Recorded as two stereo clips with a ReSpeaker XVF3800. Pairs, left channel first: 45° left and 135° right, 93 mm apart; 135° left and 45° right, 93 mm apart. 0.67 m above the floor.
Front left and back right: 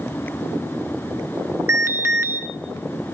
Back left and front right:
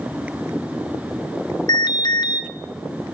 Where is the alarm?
165° left, 2.5 m.